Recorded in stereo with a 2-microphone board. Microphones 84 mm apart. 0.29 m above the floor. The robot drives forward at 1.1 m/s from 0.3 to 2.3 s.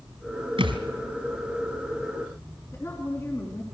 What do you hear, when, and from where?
0.6 s a thud: 75° right (ahead or behind), 2 m; by 0.8 s 70° right (ahead or behind), 2 m
2.7 s a woman speaking: 30° left (ahead or behind), 3.5 m